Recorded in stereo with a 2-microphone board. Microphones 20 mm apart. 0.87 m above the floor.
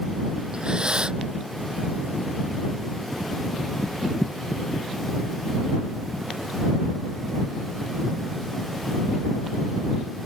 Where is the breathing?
45° right (ahead or behind).